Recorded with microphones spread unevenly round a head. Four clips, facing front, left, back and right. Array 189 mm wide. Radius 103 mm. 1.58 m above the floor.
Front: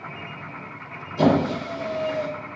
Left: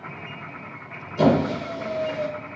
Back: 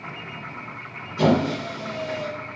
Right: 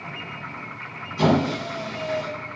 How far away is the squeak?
About 0.8 m.